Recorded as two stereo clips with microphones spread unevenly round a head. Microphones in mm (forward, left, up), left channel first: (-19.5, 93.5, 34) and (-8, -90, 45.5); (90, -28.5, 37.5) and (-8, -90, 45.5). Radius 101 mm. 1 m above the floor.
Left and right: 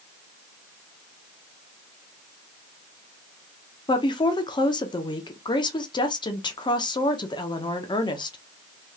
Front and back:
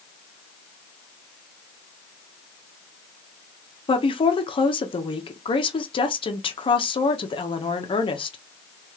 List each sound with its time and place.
3.9 s a woman speaking: 40° left, 1.1 m